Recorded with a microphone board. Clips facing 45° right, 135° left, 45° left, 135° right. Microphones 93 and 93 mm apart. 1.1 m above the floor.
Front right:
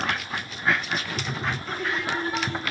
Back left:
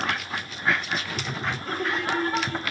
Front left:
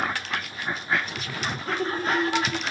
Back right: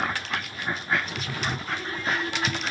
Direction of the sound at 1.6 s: 95° left.